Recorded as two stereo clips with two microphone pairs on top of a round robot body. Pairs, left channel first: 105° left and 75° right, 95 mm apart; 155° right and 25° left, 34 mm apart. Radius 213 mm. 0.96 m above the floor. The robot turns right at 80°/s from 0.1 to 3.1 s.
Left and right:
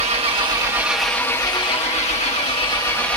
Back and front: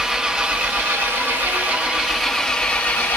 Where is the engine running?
55° right, 1.5 m; by 3.2 s 175° right, 1.5 m.